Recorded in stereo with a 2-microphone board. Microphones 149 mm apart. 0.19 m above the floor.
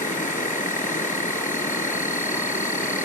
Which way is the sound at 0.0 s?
65° left (ahead or behind).